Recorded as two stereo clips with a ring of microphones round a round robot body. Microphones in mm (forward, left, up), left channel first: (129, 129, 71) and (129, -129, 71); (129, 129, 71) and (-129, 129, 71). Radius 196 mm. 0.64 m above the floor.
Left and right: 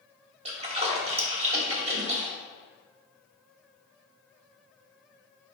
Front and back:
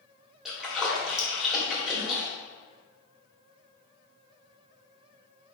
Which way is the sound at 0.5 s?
95° right.